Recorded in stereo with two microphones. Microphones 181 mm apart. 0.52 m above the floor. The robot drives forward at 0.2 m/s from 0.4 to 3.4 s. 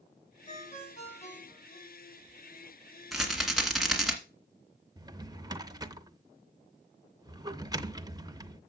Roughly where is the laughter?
I don't hear laughter.